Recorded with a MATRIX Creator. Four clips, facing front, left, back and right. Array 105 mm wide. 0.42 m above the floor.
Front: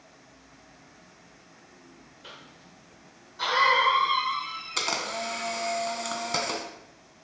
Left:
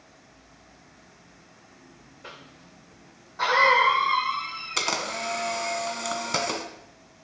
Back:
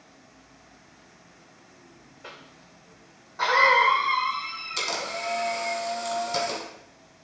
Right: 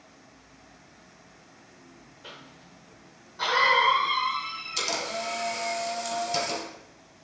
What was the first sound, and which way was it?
A cough, 145° left.